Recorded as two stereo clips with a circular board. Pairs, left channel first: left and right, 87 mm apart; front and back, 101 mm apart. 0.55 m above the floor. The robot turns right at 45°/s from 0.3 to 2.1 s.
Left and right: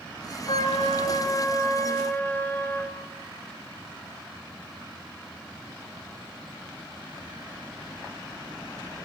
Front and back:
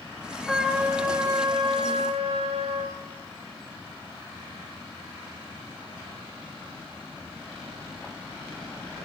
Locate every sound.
0.5 s a trumpet: 85° left, 2.5 m; by 3.0 s 160° left, 2.5 m